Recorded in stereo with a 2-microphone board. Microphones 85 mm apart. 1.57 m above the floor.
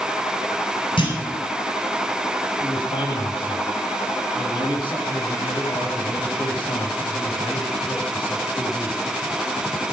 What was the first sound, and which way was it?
A clunk, 80° left.